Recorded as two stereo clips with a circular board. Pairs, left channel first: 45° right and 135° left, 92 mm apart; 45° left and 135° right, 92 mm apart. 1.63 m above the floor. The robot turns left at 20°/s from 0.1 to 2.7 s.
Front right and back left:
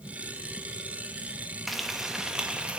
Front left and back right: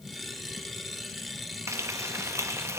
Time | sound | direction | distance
1.7 | frying | 135° right | 1.0 m